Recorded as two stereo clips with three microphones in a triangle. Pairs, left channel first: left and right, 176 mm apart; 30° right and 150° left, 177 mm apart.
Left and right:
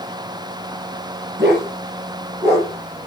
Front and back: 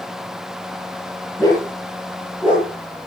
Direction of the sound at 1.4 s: 100° right.